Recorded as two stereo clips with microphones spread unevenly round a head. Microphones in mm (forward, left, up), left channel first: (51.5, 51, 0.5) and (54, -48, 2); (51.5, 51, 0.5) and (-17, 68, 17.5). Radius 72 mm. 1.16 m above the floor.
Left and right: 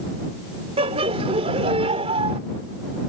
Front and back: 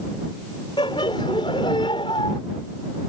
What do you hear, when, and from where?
0.8 s laughter: 65° right